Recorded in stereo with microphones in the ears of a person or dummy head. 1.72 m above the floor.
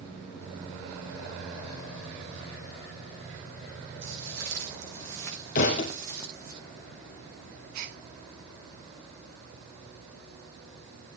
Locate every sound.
4.0 s footsteps: 75° right (ahead or behind), 8 m; by 6.5 s 55° right (ahead or behind), 7.5 m
5.5 s a thud: 35° left (ahead or behind), 2.5 m
7.7 s a gasp: 45° right (ahead or behind), 1.4 m